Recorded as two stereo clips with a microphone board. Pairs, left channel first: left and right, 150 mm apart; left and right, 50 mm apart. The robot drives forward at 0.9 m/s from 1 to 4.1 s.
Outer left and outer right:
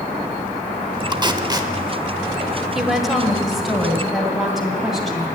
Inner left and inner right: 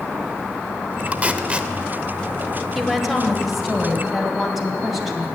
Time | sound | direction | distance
1.1 | tape being pulled | 30° right (ahead or behind) | 0.7 m
2.8 | a woman speaking | centre (ahead or behind) | 1.5 m